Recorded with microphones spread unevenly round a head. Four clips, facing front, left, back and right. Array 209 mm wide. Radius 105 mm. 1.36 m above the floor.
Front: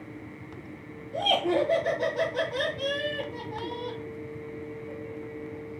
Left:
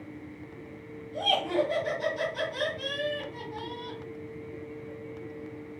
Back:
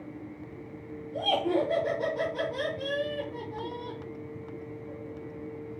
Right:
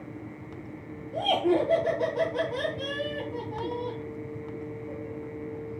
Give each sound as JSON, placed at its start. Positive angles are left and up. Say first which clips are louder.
{"t": 1.1, "sound": "laughter", "louder": "right 3 dB, front 2 dB", "azimuth_deg": -35, "distance_m": 1.6}